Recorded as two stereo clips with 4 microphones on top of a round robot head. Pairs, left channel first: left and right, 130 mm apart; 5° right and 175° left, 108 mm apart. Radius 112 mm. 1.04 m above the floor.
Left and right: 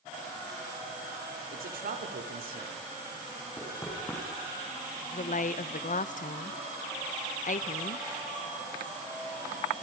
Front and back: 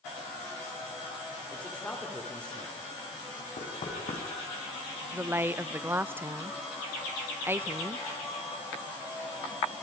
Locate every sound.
1.5 s a man speaking: 85° right, 2.5 m
3.6 s knocking: 15° left, 5 m
5.1 s a woman speaking: 105° left, 0.9 m